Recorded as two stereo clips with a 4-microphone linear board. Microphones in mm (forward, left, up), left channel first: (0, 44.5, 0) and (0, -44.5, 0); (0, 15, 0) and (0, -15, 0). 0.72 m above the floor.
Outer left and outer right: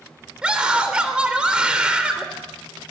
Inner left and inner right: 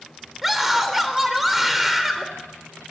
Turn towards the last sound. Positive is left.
turn(degrees=-10)  # may be behind; listen again after turning